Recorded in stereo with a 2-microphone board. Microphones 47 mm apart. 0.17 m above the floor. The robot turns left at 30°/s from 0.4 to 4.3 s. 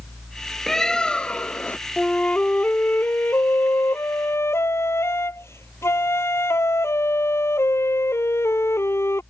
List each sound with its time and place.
0.7 s a bird: 170° left; by 1.8 s 140° left
2.0 s a flute: 160° left; by 9.2 s 90° left